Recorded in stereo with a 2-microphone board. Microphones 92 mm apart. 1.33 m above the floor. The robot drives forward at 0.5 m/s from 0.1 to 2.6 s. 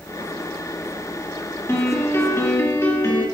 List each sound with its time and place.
1.7 s a piano: 30° left (ahead or behind), 2.5 m; by 3.2 s 35° left (ahead or behind), 2.5 m